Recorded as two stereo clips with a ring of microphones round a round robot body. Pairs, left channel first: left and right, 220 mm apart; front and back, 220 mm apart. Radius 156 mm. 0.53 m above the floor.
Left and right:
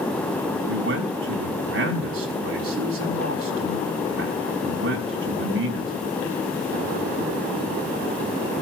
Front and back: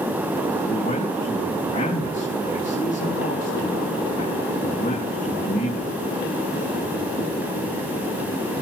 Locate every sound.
0.7 s a man speaking: 65° right, 4.5 m